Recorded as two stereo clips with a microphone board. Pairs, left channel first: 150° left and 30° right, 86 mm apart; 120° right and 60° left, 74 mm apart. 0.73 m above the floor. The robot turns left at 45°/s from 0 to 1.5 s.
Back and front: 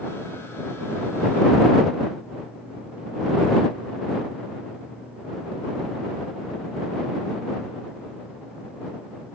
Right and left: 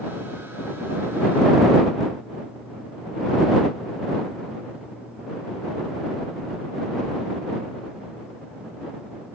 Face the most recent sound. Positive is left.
No sound to turn to.